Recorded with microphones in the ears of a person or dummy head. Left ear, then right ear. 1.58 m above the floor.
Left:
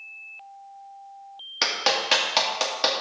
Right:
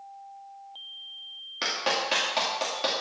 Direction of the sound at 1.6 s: 30° left (ahead or behind).